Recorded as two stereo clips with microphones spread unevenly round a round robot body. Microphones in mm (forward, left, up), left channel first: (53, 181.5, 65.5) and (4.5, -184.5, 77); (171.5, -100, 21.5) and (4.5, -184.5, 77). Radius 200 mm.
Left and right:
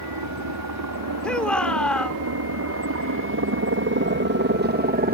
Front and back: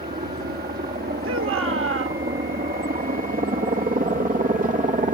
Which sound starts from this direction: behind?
A shout, at 1.2 s.